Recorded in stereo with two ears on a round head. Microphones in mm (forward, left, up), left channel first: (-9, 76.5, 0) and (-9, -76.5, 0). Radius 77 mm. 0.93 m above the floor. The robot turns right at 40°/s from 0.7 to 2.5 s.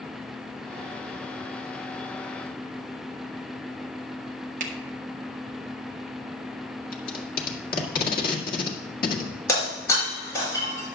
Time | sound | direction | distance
4.6 | a finger snap | 50° right (ahead or behind) | 1.3 m
6.9 | tape being pulled | 55° left (ahead or behind) | 1.7 m
9.5 | breaking glass | 20° left (ahead or behind) | 5.5 m